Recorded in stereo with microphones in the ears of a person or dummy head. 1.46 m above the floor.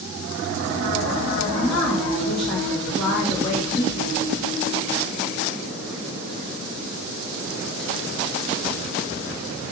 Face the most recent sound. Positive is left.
turn(degrees=65)  # may be behind; listen again after turning